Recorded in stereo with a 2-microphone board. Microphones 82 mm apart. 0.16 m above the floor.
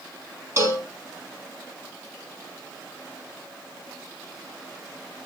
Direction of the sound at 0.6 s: 35° right (ahead or behind).